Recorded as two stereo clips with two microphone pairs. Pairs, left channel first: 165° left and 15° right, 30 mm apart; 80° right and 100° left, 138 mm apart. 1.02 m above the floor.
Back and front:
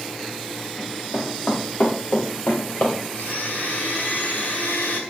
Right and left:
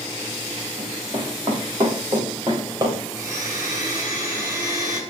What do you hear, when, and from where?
0.8 s running footsteps: 155° left, 5.5 m; by 3.0 s 160° left, 6.5 m
3.1 s a blender: 165° left, 4.5 m